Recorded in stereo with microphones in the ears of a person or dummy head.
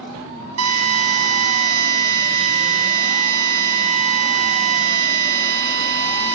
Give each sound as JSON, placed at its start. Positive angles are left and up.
{"t": 0.6, "sound": "a drill", "side_deg": -75, "distance_m": 6.0}